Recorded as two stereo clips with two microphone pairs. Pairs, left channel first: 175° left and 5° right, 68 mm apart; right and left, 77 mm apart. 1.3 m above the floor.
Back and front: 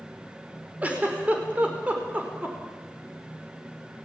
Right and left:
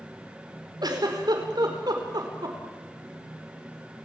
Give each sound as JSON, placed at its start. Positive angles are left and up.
{"t": 0.8, "sound": "a giggle", "azimuth_deg": 65, "distance_m": 4.5}